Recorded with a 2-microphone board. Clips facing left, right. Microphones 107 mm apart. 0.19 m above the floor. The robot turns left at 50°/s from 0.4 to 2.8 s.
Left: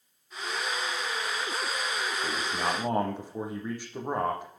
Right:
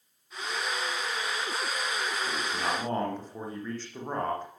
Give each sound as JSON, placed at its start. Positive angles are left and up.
{"t": 2.2, "sound": "a man speaking", "side_deg": 40, "distance_m": 6.5}